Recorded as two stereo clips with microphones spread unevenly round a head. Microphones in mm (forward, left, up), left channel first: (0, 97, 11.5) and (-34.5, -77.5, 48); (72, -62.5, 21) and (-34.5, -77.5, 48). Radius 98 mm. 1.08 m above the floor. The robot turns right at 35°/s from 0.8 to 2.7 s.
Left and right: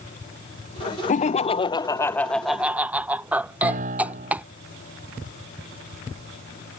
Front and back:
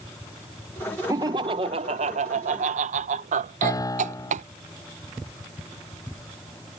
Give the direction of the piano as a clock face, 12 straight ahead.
2 o'clock.